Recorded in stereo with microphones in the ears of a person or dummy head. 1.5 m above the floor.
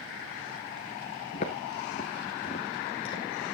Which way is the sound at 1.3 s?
25° left (ahead or behind).